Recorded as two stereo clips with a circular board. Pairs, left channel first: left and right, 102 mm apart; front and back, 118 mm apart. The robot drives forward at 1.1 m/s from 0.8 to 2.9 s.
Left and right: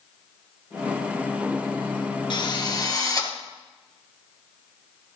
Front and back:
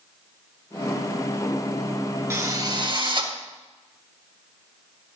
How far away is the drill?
About 1.4 m.